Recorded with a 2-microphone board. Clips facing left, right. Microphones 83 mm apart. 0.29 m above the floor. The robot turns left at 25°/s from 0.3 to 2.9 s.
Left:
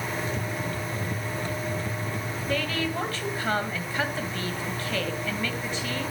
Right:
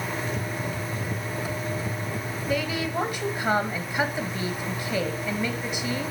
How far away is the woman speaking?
About 1.6 m.